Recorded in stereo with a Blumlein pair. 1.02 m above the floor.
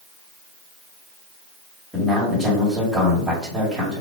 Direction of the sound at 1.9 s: 25° right.